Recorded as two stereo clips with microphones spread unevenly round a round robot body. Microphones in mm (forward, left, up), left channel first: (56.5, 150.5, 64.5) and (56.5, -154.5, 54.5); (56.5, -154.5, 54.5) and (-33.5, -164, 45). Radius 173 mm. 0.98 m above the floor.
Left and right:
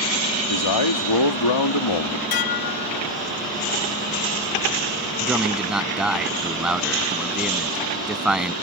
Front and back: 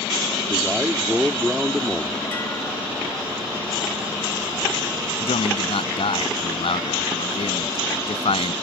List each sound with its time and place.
0.5 s a man speaking: 100° left
2.3 s dishes clattering: 90° left
5.2 s a man speaking: straight ahead